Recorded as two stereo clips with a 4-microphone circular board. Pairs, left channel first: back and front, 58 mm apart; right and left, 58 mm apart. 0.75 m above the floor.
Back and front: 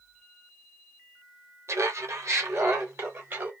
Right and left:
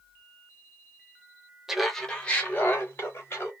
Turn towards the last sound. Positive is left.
turn(degrees=-45)